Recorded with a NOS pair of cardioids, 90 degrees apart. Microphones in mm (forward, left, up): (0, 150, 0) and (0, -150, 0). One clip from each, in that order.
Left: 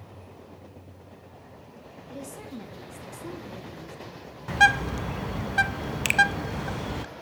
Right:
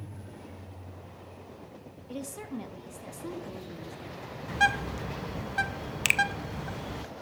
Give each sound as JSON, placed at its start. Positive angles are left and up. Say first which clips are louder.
{"t": 2.1, "sound": "a woman speaking", "louder": "right 1 dB", "azimuth_deg": -25, "distance_m": 2.5}
{"t": 4.5, "sound": "a bird", "louder": "left 6 dB", "azimuth_deg": 25, "distance_m": 0.6}
{"t": 6.0, "sound": "a finger snap", "louder": "left 2 dB", "azimuth_deg": -5, "distance_m": 0.7}